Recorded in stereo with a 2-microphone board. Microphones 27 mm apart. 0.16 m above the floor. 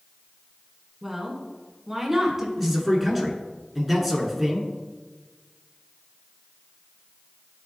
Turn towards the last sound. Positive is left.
turn(degrees=5)  # may be behind; listen again after turning